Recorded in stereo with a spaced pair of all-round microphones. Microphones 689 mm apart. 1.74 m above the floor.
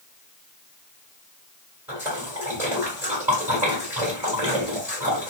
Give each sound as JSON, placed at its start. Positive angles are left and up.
{"t": 1.9, "sound": "a splash", "side_deg": -5, "distance_m": 1.8}